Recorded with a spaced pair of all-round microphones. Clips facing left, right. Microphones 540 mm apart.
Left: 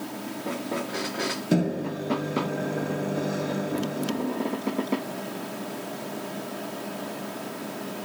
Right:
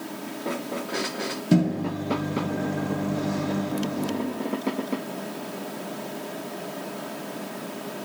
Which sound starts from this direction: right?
A microwave, at 1.5 s.